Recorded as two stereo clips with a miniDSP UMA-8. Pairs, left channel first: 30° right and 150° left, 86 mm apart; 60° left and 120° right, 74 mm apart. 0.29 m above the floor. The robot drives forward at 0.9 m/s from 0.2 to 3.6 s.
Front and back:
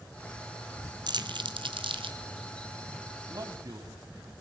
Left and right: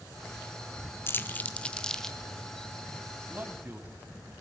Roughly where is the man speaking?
Behind.